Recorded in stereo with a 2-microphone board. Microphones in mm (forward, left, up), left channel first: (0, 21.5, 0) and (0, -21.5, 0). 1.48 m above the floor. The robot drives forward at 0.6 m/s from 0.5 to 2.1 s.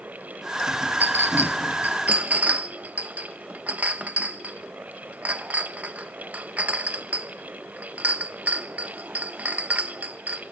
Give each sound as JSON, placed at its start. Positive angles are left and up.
{"t": 1.0, "sound": "a clink", "side_deg": -45, "distance_m": 0.7}